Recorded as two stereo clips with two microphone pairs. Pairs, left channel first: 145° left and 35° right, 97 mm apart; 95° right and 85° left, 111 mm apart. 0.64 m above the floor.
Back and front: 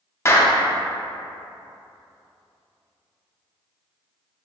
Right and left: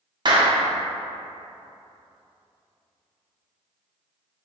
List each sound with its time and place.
0.2 s a clap: 105° left, 0.5 m